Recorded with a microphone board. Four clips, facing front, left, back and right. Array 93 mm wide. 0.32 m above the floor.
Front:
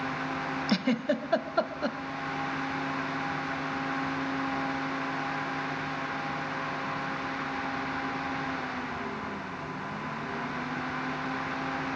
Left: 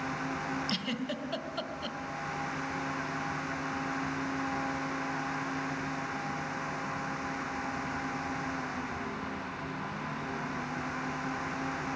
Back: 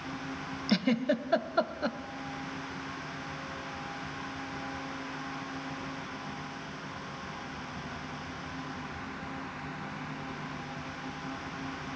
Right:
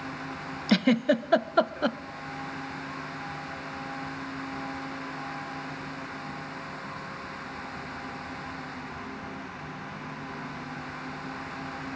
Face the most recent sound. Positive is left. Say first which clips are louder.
# right 12 dB, back 1 dB
turn(degrees=-90)